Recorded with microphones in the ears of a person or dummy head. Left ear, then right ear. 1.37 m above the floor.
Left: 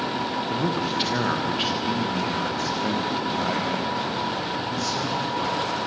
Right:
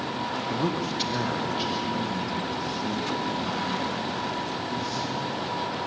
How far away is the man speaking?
About 1.4 m.